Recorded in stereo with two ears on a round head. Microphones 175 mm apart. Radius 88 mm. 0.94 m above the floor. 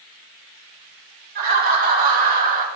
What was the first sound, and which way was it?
Laughter, 50° right (ahead or behind).